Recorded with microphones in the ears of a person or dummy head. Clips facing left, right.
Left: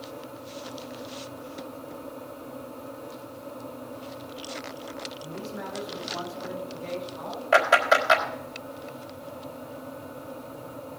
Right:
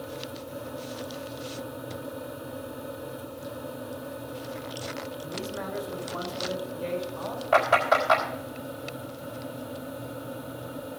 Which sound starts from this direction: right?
A man speaking, at 5.2 s.